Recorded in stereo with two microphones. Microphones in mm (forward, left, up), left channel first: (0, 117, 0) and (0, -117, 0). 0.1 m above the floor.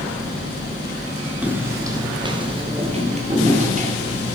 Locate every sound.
1.4 s footsteps: 5° right (ahead or behind), 2.5 m; by 4.4 s 35° right (ahead or behind), 4.5 m